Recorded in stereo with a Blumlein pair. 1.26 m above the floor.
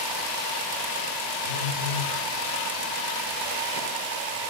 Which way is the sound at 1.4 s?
65° left.